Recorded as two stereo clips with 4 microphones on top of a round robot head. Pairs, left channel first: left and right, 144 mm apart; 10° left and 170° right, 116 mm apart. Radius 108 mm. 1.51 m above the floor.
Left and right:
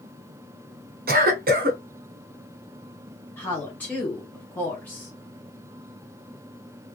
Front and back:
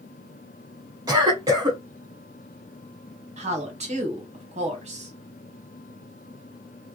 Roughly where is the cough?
Right.